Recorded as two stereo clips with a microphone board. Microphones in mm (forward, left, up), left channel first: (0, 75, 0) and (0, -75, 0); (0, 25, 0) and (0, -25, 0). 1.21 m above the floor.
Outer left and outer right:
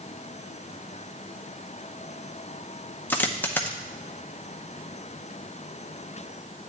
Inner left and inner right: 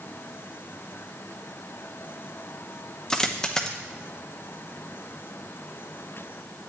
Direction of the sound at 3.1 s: 10° left (ahead or behind).